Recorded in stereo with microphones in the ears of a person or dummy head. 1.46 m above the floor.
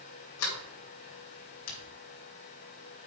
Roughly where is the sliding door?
Left.